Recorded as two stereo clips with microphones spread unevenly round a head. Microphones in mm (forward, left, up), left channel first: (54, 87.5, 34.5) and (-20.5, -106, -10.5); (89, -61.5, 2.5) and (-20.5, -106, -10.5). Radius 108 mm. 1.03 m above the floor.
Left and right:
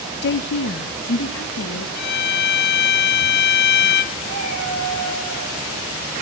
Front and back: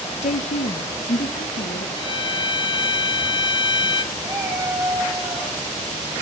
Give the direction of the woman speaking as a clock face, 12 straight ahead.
11 o'clock.